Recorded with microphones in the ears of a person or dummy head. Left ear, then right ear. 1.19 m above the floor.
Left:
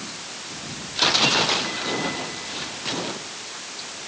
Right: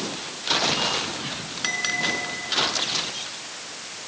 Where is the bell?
85° right.